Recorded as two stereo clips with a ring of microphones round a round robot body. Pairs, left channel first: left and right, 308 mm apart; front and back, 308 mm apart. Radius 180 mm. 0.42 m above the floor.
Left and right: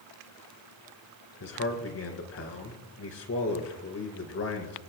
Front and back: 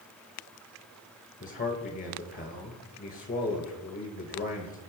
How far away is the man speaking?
About 2.5 m.